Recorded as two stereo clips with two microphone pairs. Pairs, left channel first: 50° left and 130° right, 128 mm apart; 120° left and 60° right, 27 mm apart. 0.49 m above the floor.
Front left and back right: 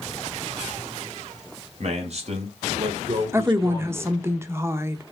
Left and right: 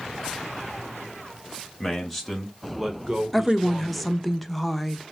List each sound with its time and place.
1.8 s a man speaking: 160° right, 2.5 m; by 4.2 s 60° right, 2.0 m
3.3 s a woman speaking: 150° right, 0.8 m